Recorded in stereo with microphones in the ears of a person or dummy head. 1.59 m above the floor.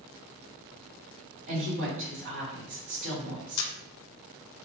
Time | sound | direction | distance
1.5 | a woman speaking | 70° right (ahead or behind) | 2.0 m
3.6 | a camera shutter | 85° left | 0.5 m